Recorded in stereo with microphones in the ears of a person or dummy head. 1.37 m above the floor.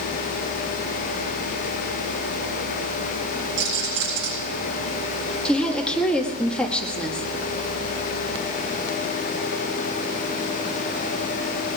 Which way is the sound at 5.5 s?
5° left (ahead or behind).